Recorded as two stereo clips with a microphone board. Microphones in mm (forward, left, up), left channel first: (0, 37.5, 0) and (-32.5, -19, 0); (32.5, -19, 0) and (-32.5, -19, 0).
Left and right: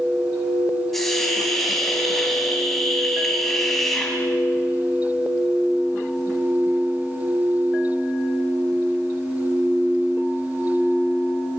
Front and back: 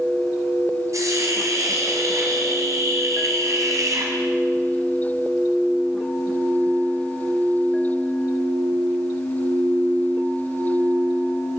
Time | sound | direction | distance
0.9 | a hiss | 145° left | 5.5 m